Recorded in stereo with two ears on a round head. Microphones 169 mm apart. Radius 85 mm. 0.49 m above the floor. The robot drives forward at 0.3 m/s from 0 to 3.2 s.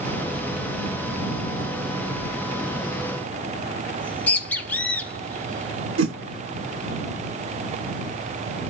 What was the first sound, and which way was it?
A bird, 10° left (ahead or behind).